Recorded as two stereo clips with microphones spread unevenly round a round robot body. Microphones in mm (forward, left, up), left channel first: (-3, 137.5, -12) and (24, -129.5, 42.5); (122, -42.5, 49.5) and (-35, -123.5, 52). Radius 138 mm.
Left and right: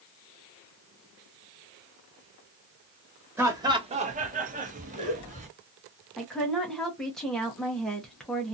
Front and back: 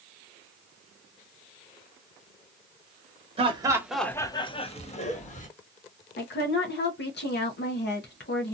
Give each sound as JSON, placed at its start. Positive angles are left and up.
{"t": 3.4, "sound": "laughter", "azimuth_deg": 180, "distance_m": 0.8}
{"t": 6.2, "sound": "a woman speaking", "azimuth_deg": 10, "distance_m": 0.9}